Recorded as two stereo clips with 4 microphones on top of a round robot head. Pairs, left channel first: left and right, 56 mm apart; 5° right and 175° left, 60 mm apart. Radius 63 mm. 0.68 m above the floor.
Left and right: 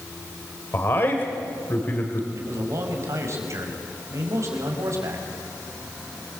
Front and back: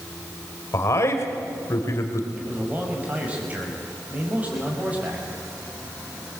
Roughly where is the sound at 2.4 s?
Behind right.